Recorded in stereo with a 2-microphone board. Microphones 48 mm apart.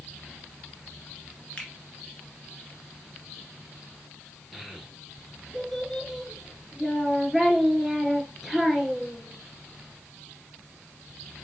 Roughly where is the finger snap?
Left.